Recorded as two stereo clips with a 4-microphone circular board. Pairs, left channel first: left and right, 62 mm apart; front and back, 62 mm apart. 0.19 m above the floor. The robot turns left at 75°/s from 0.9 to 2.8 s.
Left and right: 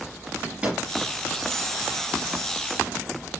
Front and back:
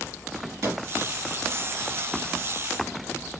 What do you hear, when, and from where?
0.6 s a microwave: 155° right, 2 m